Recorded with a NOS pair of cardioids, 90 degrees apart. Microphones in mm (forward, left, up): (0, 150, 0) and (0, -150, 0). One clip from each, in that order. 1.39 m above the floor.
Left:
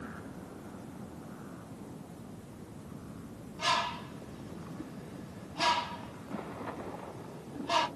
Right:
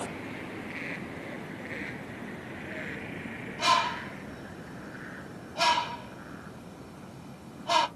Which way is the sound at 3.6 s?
45° right.